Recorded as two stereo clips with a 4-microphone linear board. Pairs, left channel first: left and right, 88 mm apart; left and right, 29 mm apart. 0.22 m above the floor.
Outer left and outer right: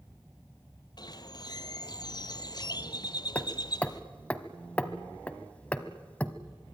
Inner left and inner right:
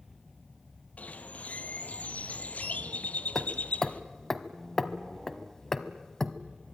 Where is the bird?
55° left (ahead or behind), 1.0 m.